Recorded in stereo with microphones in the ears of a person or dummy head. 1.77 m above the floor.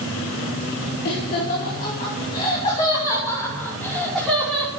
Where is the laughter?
55° left (ahead or behind), 5 m; by 4.7 s 5° right (ahead or behind), 5.5 m.